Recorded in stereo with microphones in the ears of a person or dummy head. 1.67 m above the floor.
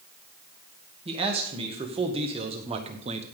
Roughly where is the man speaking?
Right.